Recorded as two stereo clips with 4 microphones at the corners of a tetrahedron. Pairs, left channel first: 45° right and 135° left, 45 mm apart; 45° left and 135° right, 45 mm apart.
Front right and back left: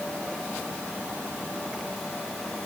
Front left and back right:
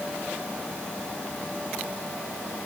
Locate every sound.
Only background noise.